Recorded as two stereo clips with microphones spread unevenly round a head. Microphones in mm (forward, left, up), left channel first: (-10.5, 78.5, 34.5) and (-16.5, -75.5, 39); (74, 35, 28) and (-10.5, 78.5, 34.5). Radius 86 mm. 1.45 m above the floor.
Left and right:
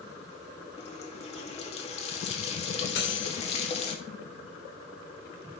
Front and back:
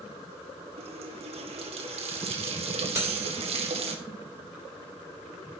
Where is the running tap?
140° left, 1.6 m.